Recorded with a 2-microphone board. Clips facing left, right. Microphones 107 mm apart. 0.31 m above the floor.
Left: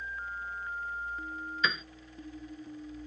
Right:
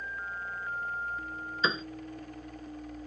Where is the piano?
30° right (ahead or behind).